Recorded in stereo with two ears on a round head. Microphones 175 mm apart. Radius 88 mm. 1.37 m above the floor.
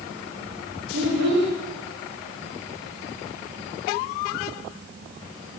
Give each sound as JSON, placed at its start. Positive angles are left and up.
{"t": 0.9, "sound": "a child speaking", "side_deg": -60, "distance_m": 2.0}